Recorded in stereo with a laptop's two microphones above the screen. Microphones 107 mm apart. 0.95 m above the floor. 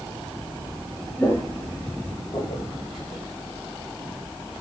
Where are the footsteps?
20° left (ahead or behind), 1.0 m; by 3.2 s 70° left (ahead or behind), 3 m.